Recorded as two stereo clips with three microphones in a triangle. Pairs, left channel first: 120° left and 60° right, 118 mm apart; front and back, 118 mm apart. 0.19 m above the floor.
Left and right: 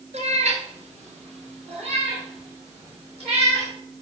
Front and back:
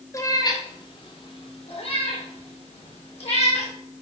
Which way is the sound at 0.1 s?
60° right.